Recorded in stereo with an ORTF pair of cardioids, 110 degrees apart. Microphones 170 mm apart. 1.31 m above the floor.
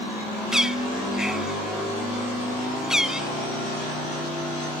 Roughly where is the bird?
Ahead.